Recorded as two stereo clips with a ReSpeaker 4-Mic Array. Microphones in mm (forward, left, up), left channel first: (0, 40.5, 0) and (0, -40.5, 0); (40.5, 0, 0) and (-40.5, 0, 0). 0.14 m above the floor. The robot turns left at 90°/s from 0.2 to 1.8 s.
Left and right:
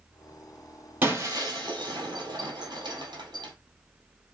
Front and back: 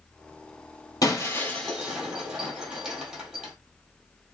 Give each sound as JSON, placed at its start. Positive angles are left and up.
{"t": 1.0, "sound": "breaking glass", "azimuth_deg": -30, "distance_m": 2.0}